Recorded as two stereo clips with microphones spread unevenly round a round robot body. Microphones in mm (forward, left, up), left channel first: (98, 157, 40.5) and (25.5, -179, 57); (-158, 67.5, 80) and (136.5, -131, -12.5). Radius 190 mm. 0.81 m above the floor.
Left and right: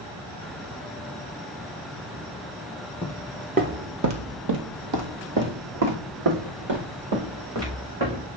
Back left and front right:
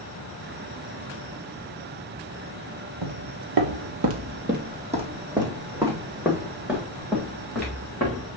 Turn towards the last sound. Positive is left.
turn(degrees=-130)